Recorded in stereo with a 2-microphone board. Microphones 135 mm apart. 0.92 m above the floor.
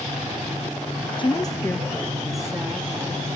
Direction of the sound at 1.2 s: 35° left (ahead or behind).